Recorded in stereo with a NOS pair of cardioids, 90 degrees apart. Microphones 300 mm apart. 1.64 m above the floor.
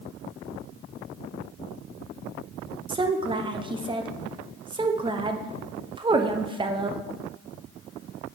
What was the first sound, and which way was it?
A woman speaking, 15° right.